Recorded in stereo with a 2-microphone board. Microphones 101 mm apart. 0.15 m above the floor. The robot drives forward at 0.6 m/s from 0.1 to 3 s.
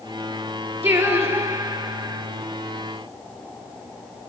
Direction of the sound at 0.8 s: 25° right (ahead or behind).